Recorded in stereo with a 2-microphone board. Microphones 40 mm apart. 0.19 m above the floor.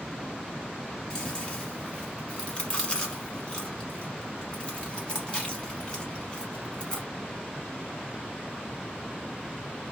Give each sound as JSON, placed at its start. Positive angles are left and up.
{"t": 1.1, "sound": "chewing", "side_deg": 25, "distance_m": 1.0}